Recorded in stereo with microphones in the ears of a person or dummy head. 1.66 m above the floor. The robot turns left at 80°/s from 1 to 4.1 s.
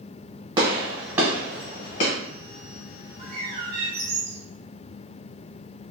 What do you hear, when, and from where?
0.6 s a gunshot: 25° right (ahead or behind), 1.1 m; by 2.1 s 50° left (ahead or behind), 1.1 m
3.2 s a bird: 50° right, 0.8 m; by 4.4 s 120° right, 0.8 m